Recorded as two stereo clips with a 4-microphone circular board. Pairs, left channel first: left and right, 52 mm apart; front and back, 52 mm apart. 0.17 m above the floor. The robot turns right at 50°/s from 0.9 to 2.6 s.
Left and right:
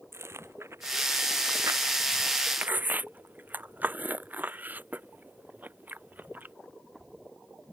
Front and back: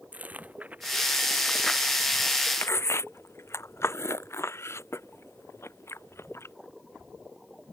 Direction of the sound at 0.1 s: 120° right.